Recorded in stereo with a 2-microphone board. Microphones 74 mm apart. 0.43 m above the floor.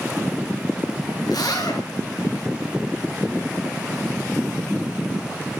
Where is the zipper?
65° left (ahead or behind), 4 m.